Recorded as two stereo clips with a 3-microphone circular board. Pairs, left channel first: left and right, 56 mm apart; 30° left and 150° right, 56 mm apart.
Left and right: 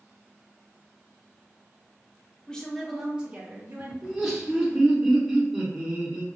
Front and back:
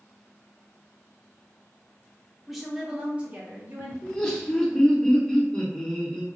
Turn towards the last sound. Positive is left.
turn(degrees=-25)